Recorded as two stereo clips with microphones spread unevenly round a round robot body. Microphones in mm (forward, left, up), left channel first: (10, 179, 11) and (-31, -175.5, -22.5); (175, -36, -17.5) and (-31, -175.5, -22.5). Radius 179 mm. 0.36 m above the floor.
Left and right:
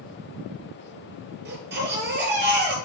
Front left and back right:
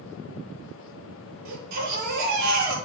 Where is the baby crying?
160° right, 6.5 m.